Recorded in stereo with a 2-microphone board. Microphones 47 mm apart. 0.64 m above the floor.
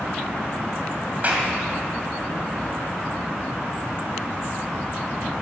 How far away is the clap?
About 2.5 m.